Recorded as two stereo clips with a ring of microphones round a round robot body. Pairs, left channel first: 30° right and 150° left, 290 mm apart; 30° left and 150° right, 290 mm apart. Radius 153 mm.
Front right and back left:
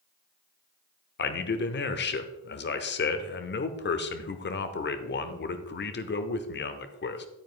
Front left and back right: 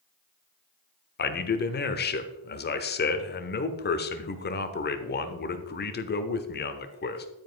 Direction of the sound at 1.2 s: 5° right.